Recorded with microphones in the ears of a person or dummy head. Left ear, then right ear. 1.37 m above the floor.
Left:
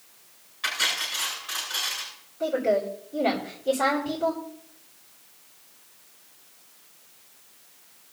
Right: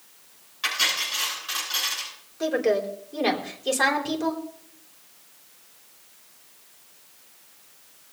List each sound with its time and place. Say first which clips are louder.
0.6 s cutlery clinking: right 2 dB; 20° right (ahead or behind), 10 m
2.4 s a woman speaking: right 1 dB; 70° right (ahead or behind), 4.5 m